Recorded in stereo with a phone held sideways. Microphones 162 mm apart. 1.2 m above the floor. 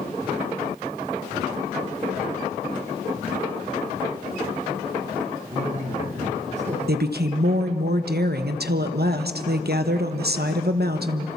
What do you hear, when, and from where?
5.5 s a man speaking: 45° right (ahead or behind), 10 m
6.9 s a woman speaking: 80° right, 1.1 m